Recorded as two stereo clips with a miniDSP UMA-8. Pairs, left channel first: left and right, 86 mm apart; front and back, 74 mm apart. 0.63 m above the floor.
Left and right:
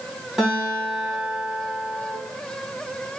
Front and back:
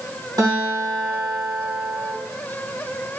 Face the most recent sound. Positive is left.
turn(degrees=-170)